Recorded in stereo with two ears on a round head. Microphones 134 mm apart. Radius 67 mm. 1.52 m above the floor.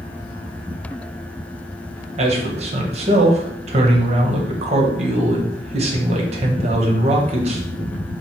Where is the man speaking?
40° right (ahead or behind), 1.1 m.